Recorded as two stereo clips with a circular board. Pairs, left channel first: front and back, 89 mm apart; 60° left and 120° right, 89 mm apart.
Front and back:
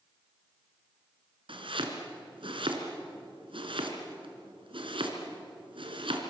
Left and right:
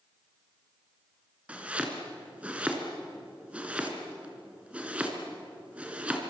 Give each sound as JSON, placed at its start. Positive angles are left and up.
{"t": 1.5, "sound": "chopping", "azimuth_deg": 165, "distance_m": 3.0}